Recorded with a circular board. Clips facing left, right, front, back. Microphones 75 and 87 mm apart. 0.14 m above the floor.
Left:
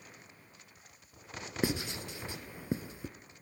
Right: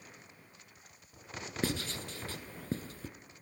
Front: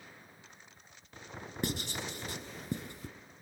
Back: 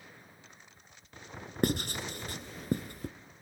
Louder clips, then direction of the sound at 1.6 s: Left 2 dB, back 6 dB; 165° left.